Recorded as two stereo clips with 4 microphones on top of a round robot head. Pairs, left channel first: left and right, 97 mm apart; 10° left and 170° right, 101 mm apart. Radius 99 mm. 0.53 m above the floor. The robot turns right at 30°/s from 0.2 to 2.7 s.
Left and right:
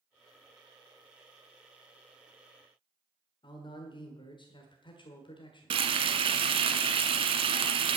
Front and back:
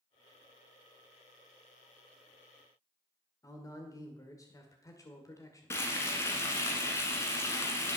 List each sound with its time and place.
3.4 s a man speaking: 60° left, 2.0 m
5.7 s frying: 65° right, 1.1 m